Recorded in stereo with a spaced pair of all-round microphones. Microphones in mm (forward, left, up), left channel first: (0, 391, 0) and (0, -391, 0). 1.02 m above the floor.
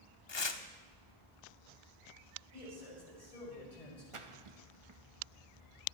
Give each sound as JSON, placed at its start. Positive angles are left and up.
{"t": 0.3, "sound": "tearing paper", "side_deg": 35, "distance_m": 0.7}
{"t": 2.5, "sound": "a man speaking", "side_deg": 50, "distance_m": 5.0}
{"t": 4.1, "sound": "a splash", "side_deg": -40, "distance_m": 1.0}